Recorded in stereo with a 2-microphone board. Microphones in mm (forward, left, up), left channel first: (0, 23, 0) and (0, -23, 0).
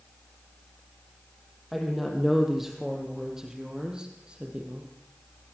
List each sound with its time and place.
1.7 s a woman speaking: centre (ahead or behind), 6 m; by 4.9 s 25° right (ahead or behind), 4.5 m